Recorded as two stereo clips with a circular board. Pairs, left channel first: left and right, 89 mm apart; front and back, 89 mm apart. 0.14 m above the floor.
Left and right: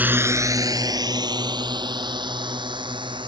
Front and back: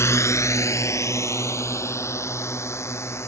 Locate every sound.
0.0 s a drone: 30° right; by 3.3 s 60° right